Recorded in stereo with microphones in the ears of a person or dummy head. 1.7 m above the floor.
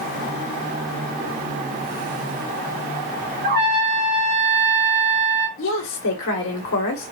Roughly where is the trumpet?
Right.